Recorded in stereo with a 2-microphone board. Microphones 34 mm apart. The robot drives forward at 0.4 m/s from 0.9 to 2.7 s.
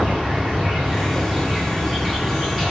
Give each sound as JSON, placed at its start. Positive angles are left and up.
{"t": 0.0, "sound": "an insect", "side_deg": -15, "distance_m": 1.1}